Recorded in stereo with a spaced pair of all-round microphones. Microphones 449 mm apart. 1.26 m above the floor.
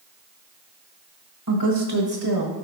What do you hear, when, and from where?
1.5 s a woman speaking: 45° right (ahead or behind), 1.3 m; by 2.6 s 65° right (ahead or behind), 1.8 m